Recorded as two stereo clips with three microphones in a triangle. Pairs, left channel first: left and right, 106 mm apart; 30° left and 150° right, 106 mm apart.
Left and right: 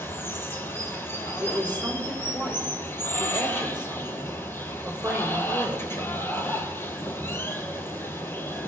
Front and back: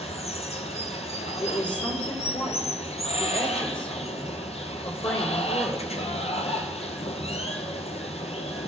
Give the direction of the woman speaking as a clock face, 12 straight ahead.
12 o'clock.